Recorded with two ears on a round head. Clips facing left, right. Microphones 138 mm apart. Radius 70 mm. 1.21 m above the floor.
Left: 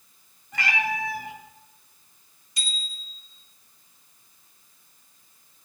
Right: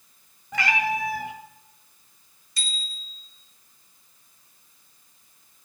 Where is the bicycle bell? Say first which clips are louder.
Even; 15° left (ahead or behind), 3 m.